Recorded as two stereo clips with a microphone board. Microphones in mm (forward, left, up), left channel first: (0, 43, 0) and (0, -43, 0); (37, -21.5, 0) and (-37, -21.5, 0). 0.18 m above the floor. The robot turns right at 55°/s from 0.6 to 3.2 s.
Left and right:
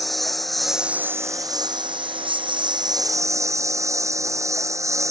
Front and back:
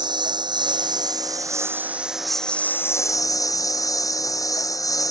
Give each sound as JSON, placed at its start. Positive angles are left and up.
{"t": 0.0, "sound": "a lawn mower", "azimuth_deg": 180}